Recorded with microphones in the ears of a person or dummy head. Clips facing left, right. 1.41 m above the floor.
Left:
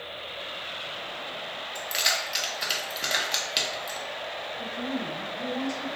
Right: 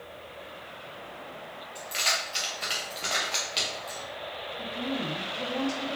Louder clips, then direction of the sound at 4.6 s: Even; 45° right (ahead or behind).